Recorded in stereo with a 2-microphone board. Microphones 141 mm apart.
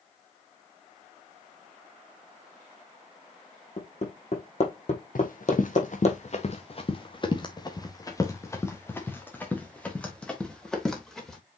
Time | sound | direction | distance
3.8 | hammering | 50° left (ahead or behind) | 3.5 m
5.2 | running footsteps | 75° left (ahead or behind) | 1.8 m